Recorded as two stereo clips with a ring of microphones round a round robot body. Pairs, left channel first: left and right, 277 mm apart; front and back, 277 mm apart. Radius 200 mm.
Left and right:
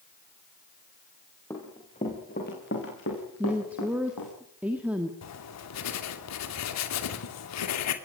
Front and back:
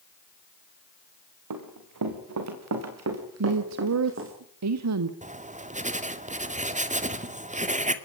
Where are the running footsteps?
175° left, 5 m; by 4.3 s 140° left, 7 m.